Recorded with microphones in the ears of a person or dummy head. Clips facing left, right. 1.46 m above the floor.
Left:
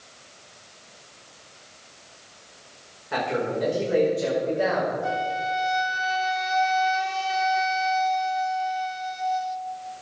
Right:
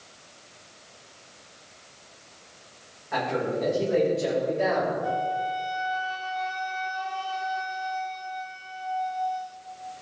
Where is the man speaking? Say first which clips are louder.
Left 1 dB; 50° left (ahead or behind), 4.5 m; by 4.9 s 55° left (ahead or behind), 5.5 m.